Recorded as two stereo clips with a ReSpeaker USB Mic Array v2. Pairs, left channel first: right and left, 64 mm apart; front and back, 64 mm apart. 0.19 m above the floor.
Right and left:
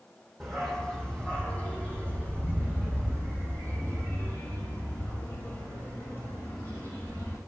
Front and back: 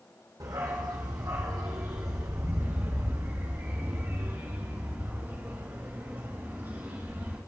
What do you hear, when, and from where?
0.4 s a dog barking: straight behind, 1.9 m; by 7.4 s 125° right, 5 m